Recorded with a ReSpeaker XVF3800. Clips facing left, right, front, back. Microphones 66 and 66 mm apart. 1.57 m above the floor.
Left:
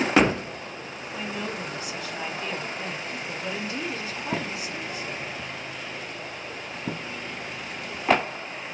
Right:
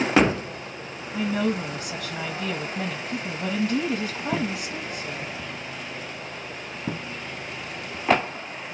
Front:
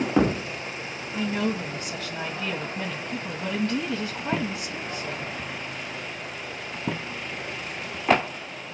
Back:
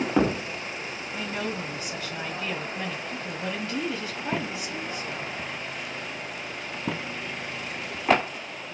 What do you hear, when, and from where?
1.1 s a woman speaking: 90° right, 1.6 m